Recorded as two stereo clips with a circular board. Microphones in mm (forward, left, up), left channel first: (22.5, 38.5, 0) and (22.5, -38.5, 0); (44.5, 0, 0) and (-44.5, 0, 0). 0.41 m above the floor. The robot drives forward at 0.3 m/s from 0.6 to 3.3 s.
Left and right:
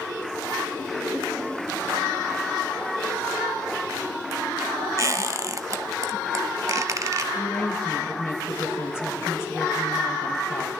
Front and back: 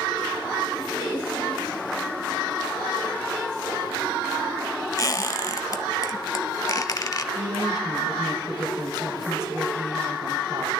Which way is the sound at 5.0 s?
45° right.